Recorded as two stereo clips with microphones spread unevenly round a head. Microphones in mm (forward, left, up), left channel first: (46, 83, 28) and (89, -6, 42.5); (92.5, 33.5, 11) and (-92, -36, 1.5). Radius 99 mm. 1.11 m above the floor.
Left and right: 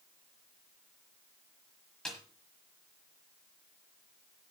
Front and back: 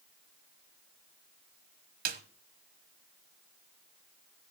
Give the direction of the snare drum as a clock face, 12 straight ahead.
5 o'clock.